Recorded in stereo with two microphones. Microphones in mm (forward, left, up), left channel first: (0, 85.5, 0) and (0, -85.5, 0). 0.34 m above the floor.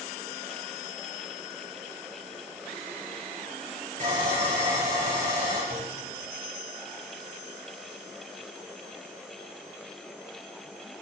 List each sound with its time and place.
4.0 s sawing: 45° right (ahead or behind), 5.5 m
5.7 s a clunk: 30° right (ahead or behind), 4.5 m